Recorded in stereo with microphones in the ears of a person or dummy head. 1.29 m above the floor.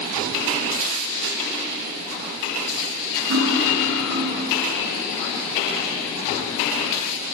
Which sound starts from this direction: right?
Cutlery clinking, at 3.3 s.